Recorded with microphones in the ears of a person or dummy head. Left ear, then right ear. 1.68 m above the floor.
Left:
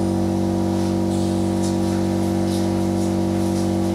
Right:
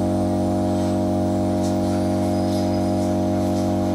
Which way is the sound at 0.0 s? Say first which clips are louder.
Even; 50° left (ahead or behind).